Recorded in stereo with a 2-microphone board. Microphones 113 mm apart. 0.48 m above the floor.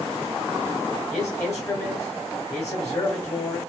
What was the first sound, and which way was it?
A man speaking, 25° left (ahead or behind).